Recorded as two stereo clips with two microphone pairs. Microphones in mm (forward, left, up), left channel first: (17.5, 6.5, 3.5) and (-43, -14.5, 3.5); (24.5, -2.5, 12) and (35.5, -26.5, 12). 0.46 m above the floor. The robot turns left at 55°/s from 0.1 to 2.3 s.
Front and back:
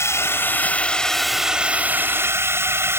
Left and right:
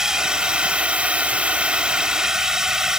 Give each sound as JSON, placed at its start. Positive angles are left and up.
{"t": 0.0, "sound": "a drone", "azimuth_deg": -5}